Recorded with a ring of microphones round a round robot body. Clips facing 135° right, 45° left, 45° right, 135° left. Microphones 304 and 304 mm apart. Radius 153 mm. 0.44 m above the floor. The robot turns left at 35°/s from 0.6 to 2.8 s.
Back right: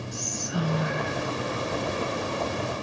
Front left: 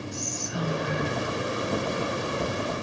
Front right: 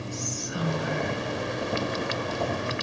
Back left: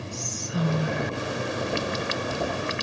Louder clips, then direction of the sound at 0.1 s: Back right 1 dB, back left 3 dB; 160° right.